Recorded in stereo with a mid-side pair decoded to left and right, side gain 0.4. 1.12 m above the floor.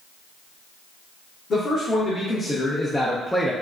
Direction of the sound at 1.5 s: 60° left.